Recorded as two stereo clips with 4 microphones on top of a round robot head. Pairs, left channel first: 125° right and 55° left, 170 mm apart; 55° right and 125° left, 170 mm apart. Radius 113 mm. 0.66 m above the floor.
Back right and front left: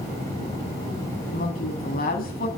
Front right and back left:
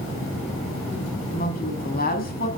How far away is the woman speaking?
About 5.5 m.